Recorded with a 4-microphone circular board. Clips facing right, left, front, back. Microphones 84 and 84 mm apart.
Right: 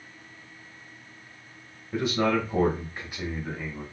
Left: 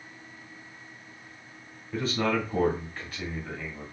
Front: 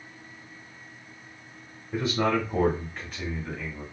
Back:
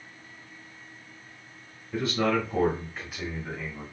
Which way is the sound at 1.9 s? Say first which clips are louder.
Right 3 dB, front 1 dB; 35° right.